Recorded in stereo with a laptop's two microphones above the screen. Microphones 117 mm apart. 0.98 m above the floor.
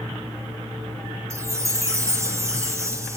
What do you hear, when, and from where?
1.3 s a chime: 25° right (ahead or behind), 0.7 m